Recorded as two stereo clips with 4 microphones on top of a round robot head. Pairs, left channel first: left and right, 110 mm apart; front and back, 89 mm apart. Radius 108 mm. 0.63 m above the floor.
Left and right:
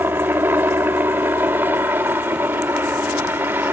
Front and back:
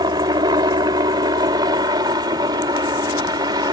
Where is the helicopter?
160° right.